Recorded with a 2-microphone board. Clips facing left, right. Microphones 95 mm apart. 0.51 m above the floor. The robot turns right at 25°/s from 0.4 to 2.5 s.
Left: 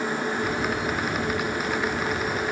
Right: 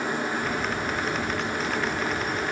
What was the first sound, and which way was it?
Only background noise.